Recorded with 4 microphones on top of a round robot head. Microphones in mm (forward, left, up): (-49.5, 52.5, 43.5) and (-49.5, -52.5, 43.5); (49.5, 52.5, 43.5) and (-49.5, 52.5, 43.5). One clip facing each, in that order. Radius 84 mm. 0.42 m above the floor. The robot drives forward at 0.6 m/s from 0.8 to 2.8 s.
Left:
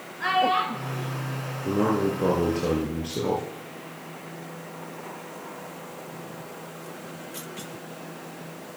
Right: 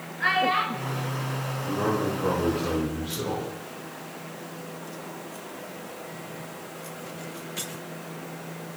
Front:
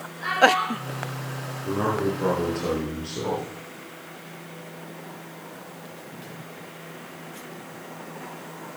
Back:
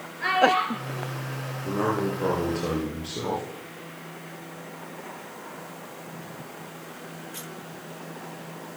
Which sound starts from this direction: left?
A man speaking, at 1.6 s.